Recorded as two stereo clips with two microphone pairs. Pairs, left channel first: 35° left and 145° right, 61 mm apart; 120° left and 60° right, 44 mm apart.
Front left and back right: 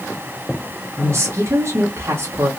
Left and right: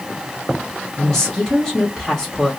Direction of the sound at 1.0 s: 170° right.